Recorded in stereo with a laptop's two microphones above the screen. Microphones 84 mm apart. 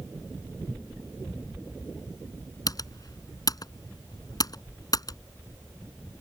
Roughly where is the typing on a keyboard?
Left.